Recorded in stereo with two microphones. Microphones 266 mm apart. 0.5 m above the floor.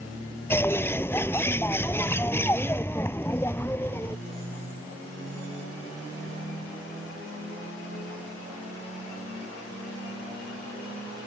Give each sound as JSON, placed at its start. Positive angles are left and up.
{"t": 0.5, "sound": "a bird", "side_deg": 10}